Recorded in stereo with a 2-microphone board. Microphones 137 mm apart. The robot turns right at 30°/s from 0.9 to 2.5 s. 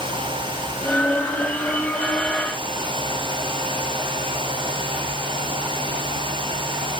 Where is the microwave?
I don't hear a microwave.